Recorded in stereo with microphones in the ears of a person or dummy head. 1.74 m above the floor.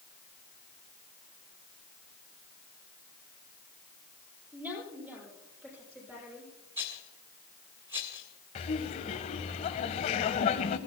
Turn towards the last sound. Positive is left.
turn(degrees=35)  # may be behind; listen again after turning